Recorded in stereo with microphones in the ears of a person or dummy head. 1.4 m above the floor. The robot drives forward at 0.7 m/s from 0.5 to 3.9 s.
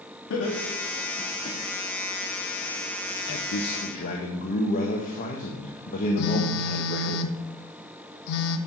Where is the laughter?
75° left (ahead or behind), 2 m; by 1.6 s 55° left (ahead or behind), 2.5 m.